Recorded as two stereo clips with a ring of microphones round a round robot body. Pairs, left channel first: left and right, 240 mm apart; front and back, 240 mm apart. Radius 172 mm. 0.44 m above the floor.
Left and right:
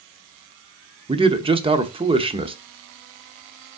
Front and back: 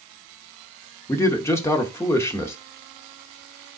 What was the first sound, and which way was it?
A man speaking, 60° right.